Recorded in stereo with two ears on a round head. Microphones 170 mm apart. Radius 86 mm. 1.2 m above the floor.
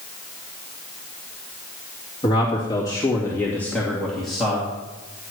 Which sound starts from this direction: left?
A man speaking, at 2.2 s.